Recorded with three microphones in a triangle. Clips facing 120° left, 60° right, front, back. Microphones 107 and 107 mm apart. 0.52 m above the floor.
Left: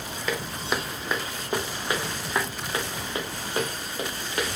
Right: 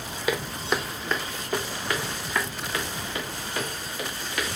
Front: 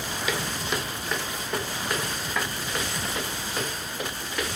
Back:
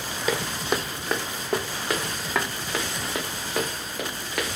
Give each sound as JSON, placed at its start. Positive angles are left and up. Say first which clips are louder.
{"t": 0.3, "sound": "footsteps", "louder": "right 2 dB, back 5 dB", "azimuth_deg": -140, "distance_m": 0.9}